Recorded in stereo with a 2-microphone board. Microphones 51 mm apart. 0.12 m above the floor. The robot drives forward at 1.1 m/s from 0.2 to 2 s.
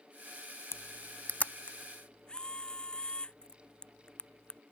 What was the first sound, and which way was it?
A camera shutter, 65° left (ahead or behind).